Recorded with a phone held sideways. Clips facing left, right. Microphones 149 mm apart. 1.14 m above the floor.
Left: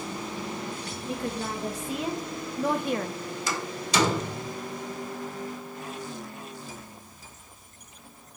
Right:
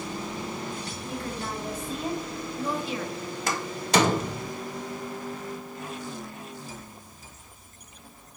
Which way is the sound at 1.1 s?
70° left (ahead or behind).